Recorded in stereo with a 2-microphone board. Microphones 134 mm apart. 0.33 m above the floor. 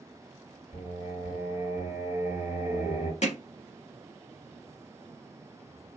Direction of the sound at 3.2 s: 55° left (ahead or behind).